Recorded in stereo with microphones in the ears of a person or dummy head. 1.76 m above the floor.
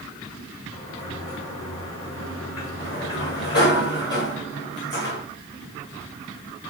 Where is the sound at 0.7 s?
50° left (ahead or behind), 6.5 m.